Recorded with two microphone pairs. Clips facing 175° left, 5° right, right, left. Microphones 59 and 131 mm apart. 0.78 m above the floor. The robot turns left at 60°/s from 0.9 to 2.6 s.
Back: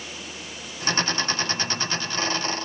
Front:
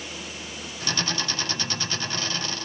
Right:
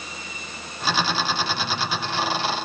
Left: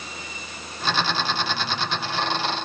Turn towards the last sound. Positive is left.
No sound to turn to.